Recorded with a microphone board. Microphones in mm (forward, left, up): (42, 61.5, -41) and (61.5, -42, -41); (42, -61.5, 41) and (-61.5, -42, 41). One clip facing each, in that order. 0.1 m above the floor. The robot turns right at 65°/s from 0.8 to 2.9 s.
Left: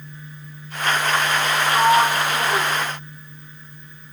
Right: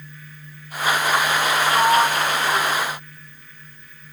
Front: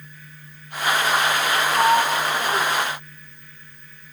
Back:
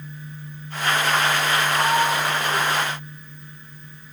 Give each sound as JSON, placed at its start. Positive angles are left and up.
{"t": 1.7, "sound": "a sliding door", "azimuth_deg": 5, "distance_m": 1.2}